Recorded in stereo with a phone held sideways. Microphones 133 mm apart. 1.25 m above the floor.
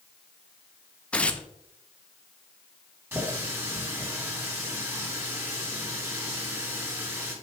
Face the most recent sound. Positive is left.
turn(degrees=-20)  # may be behind; listen again after turning